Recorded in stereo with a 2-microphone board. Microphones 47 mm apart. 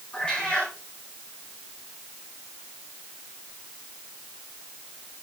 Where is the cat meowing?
20° left (ahead or behind), 7.5 m.